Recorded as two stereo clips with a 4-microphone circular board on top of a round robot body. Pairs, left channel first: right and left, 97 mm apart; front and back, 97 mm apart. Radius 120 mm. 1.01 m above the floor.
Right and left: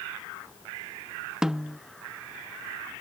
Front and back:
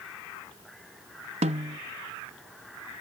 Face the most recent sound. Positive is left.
turn(degrees=175)